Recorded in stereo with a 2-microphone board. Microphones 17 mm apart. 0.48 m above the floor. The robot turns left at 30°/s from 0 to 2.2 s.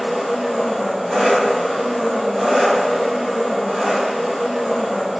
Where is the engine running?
30° right, 1.6 m; by 5.2 s 95° right, 1.6 m.